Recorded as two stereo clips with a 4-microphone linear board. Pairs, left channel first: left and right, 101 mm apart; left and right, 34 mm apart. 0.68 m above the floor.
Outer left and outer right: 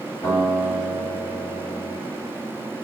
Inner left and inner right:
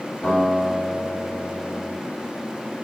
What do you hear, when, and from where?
0.2 s a guitar: 20° left (ahead or behind), 1.7 m